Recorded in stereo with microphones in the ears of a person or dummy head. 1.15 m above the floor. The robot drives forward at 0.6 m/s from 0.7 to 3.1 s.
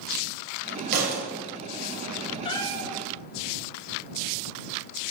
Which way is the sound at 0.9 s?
50° right (ahead or behind).